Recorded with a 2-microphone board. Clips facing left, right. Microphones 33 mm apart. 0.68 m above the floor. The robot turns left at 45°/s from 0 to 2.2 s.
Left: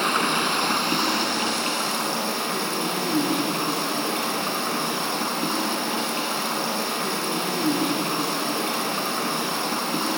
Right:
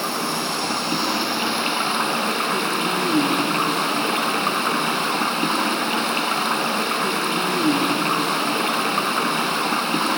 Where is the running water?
45° left, 1.5 m; by 10.2 s 50° right, 1.5 m.